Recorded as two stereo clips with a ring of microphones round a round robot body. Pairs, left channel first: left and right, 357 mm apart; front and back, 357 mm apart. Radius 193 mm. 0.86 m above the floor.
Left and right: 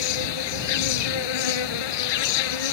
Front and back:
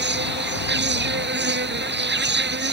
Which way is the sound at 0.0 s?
120° left.